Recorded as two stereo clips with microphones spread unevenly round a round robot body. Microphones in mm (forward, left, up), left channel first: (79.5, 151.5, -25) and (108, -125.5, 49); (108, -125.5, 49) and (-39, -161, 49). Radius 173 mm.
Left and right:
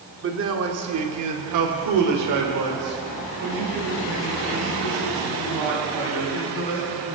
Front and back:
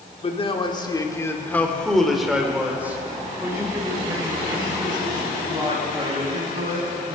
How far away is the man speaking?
About 1.8 m.